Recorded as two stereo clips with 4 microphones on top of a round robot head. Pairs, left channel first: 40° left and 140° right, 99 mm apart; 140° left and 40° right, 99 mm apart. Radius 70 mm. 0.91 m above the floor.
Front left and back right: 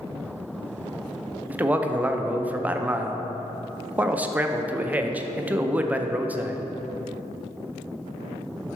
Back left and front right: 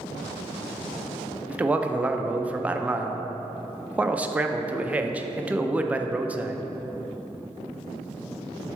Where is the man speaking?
90° right, 0.6 m.